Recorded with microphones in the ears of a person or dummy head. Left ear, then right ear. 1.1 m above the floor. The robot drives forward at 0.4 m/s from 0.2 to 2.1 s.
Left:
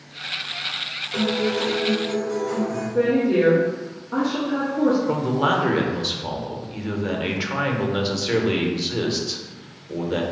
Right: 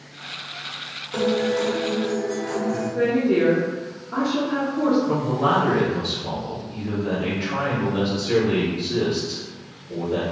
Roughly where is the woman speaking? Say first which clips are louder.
Left 2 dB; centre.